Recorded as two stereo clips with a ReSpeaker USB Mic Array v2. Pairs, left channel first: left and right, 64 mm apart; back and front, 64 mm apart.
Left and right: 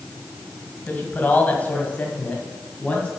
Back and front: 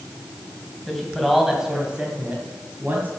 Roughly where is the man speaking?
Left.